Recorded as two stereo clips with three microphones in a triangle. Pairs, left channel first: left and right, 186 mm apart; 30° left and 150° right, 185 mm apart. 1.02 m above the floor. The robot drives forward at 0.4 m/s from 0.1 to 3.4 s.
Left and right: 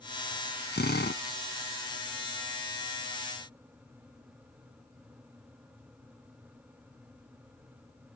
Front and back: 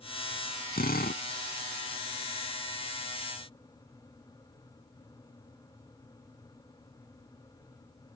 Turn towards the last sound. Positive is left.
turn(degrees=75)